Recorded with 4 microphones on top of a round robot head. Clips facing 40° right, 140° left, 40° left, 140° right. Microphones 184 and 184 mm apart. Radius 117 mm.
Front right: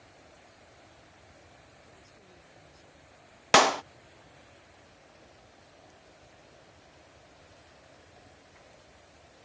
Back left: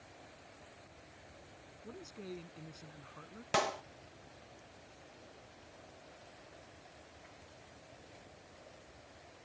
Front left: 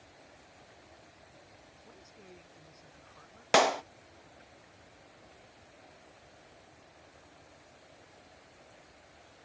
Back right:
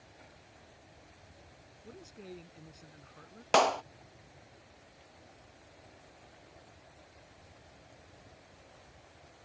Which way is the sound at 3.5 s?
45° right.